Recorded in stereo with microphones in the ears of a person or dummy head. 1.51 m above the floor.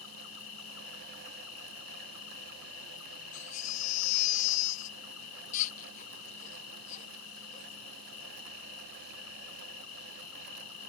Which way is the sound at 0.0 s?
70° left (ahead or behind).